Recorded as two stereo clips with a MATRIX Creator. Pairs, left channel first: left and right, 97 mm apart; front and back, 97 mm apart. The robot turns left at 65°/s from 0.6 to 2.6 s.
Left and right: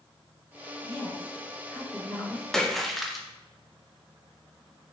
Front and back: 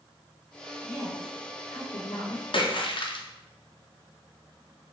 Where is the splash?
5° left, 0.5 m; by 3.3 s straight ahead, 0.5 m.